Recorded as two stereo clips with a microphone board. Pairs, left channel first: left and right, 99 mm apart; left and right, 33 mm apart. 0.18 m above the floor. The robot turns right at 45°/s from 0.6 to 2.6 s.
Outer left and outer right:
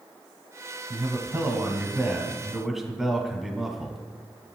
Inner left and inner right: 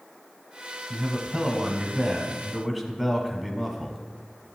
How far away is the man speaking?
About 1.2 m.